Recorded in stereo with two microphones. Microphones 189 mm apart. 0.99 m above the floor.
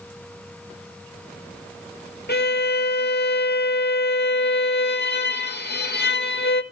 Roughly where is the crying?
I don't hear crying.